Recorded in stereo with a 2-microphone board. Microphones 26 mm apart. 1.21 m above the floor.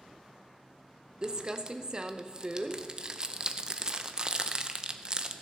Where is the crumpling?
30° right (ahead or behind), 0.7 m.